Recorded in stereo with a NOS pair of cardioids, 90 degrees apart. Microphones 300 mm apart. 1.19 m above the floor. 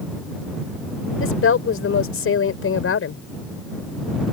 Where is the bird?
No bird in this recording.